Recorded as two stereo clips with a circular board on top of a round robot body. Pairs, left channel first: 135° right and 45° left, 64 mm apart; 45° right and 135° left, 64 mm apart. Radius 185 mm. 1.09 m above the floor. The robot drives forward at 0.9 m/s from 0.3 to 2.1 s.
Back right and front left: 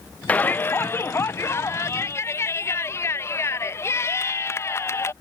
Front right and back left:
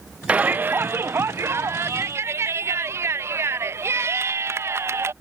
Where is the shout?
175° right; by 5.1 s straight behind.